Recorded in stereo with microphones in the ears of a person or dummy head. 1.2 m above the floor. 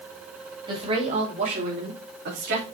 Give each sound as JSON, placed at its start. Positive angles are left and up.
{"t": 0.7, "sound": "a woman speaking", "side_deg": -30, "distance_m": 2.5}